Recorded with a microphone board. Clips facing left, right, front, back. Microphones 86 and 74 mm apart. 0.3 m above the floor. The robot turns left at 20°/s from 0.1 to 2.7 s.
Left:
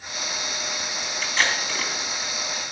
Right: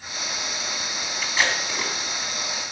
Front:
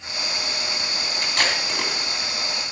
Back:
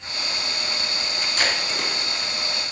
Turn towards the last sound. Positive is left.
turn(degrees=-35)